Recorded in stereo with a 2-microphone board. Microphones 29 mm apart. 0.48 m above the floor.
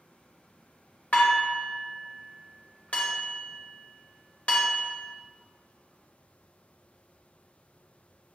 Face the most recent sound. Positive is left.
turn(degrees=60)  # may be behind; listen again after turning